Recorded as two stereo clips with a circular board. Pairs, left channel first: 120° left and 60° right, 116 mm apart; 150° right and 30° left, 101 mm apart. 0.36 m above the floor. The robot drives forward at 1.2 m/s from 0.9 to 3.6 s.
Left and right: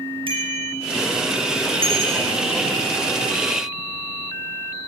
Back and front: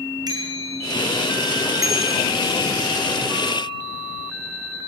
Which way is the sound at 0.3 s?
20° right.